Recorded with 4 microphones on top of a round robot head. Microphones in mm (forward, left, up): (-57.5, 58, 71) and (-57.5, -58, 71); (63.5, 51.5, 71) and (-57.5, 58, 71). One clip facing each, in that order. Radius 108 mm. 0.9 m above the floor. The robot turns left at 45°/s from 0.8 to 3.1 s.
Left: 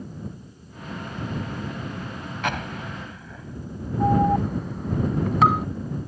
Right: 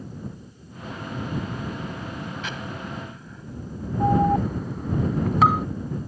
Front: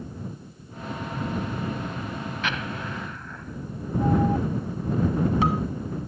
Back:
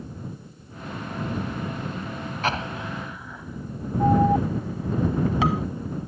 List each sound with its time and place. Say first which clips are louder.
2.4 s an explosion: left 4 dB, back 6 dB; 125° left; by 3.7 s 95° left
4.0 s an alarm: even, back 4 dB; straight behind